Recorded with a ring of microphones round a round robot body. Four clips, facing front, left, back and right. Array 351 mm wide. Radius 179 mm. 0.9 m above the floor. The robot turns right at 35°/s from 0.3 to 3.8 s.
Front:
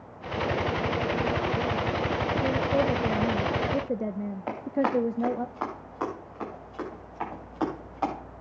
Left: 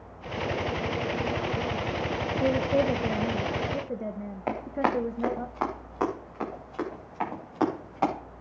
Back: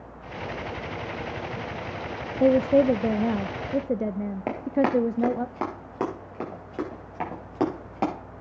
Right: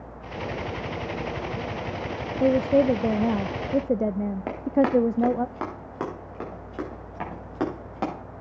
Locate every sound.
2.4 s a woman speaking: 155° right, 0.5 m; by 5.5 s 105° right, 0.5 m
4.5 s running footsteps: 145° right, 5 m